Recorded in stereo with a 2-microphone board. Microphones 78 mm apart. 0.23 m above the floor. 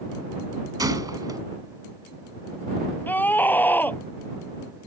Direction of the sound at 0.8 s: 55° right (ahead or behind).